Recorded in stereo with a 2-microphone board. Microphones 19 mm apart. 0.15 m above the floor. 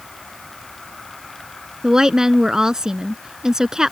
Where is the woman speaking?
35° right (ahead or behind).